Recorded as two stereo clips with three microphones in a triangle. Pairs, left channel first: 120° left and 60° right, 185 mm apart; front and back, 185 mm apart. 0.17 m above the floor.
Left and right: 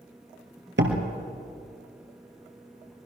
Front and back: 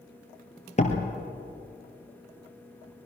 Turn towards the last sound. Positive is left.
turn(degrees=-55)